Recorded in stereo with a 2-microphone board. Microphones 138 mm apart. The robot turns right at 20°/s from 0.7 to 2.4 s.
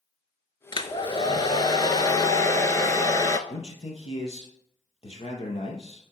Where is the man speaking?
45° left (ahead or behind), 2.5 m.